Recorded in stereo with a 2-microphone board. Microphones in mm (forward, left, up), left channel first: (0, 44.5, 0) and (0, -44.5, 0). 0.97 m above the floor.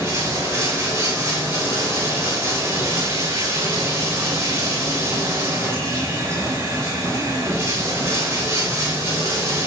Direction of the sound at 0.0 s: 35° right (ahead or behind).